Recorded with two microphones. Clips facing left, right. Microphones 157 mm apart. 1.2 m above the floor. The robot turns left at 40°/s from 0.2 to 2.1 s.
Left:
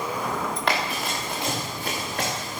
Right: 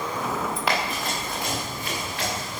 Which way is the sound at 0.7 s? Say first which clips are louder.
Left 1 dB; 5° right (ahead or behind).